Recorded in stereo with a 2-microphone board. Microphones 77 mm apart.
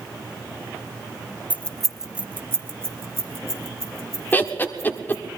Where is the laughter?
25° left (ahead or behind), 1.1 m.